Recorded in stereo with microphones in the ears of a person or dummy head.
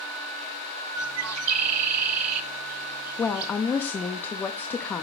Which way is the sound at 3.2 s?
10° left (ahead or behind).